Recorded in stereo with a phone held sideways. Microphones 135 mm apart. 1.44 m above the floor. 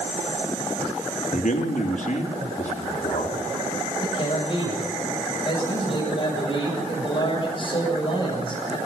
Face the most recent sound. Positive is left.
turn(degrees=40)  # may be behind; listen again after turning